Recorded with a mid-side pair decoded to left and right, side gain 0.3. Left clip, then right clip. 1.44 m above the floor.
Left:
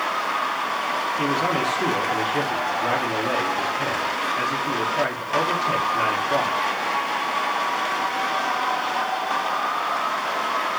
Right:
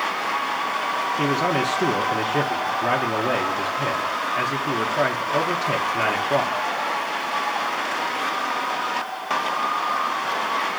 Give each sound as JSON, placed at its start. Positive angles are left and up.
{"t": 1.2, "sound": "a man speaking", "azimuth_deg": -50, "distance_m": 1.0}